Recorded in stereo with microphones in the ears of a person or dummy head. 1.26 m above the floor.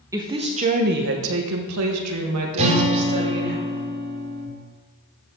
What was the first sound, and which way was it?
A woman speaking, 15° right (ahead or behind).